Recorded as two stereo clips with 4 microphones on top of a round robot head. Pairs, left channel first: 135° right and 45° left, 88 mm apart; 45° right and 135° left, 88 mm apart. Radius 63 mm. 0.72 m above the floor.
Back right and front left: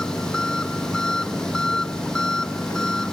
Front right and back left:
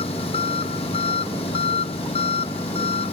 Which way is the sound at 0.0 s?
50° right.